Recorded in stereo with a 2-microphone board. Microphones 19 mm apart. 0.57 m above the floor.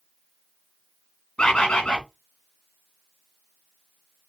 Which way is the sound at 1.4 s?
80° left.